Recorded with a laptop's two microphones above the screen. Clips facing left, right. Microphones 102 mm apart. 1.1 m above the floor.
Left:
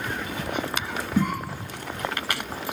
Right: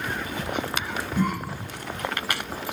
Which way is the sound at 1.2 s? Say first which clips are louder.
Left 1 dB; 75° left (ahead or behind).